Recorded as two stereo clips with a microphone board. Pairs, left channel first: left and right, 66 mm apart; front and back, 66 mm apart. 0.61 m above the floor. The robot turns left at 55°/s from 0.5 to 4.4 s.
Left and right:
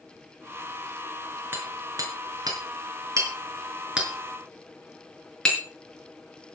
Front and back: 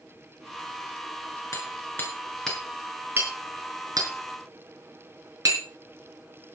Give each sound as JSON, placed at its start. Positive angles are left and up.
{"t": 1.5, "sound": "hammering", "azimuth_deg": -30, "distance_m": 5.5}